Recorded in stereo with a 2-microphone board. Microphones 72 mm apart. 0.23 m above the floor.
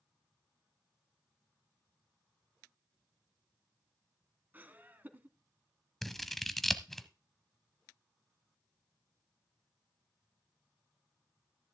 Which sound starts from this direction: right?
Laughter, at 4.5 s.